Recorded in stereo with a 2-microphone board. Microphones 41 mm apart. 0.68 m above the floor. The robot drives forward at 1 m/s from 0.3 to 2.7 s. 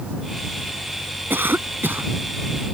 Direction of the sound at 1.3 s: 60° right (ahead or behind).